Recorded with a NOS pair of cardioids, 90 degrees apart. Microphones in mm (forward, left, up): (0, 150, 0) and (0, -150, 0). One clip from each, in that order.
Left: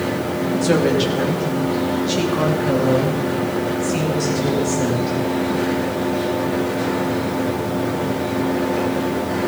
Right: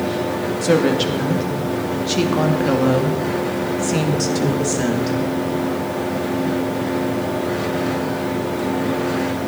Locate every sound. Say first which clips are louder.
0.6 s a woman speaking: right 1 dB; 10° right, 2.5 m; by 5.2 s 50° right, 3.5 m